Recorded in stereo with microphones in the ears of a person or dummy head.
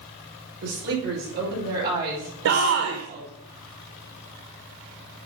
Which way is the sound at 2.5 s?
65° right (ahead or behind).